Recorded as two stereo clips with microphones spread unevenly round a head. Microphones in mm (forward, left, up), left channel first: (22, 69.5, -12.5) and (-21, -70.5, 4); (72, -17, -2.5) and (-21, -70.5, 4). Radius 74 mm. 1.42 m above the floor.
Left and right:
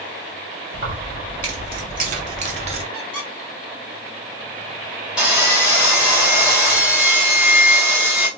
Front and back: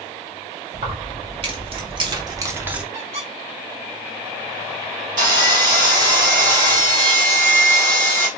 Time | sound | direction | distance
0.7 | keys jangling | 135° right | 1.6 m
2.9 | a squeak | 160° left | 1.9 m
5.2 | sawing | 170° left | 1.4 m